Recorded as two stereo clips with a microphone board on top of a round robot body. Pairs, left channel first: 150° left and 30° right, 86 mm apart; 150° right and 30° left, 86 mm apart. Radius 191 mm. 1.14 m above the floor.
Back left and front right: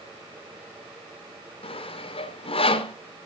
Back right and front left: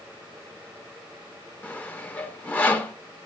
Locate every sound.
1.6 s sawing: 135° left, 1.0 m